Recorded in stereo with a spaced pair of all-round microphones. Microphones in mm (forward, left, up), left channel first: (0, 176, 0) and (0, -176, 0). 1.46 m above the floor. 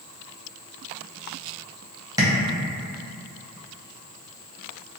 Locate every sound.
2.2 s tapping: 10° right (ahead or behind), 0.5 m